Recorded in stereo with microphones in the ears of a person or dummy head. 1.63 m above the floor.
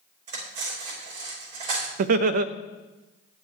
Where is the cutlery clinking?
45° right (ahead or behind), 4 m.